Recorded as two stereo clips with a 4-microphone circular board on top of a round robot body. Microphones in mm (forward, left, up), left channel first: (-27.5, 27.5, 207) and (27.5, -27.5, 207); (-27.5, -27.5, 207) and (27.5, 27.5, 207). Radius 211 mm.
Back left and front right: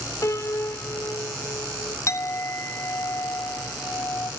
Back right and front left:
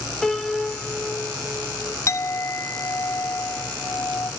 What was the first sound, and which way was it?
A piano, 150° left.